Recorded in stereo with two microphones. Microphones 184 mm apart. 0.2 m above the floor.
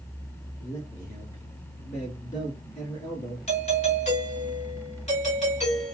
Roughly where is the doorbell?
Left.